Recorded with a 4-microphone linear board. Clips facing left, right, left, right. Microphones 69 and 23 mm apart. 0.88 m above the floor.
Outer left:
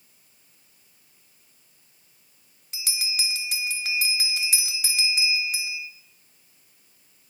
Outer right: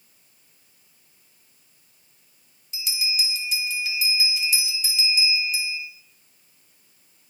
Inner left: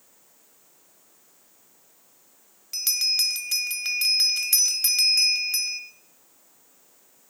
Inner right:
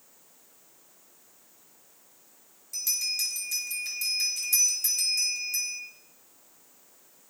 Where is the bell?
65° left (ahead or behind), 1.2 m.